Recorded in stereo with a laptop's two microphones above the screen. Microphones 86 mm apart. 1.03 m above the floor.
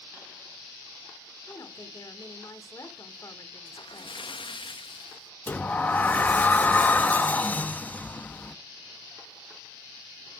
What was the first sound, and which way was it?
A woman speaking, 40° left (ahead or behind).